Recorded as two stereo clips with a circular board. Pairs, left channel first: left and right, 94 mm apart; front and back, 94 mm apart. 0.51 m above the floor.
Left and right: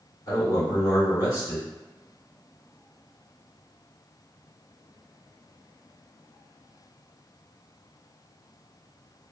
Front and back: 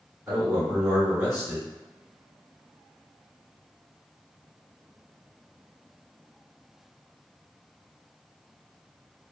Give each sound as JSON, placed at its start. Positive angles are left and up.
{"t": 0.3, "sound": "a man speaking", "azimuth_deg": 115, "distance_m": 1.7}